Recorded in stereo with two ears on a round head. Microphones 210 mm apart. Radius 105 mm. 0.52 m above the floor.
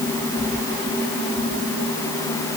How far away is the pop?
No pop in this recording.